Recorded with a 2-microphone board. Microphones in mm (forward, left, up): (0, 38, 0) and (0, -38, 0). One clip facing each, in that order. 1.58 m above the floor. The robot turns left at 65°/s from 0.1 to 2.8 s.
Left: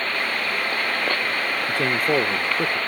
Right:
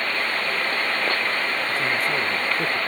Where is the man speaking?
80° left; by 2.8 s 10° left.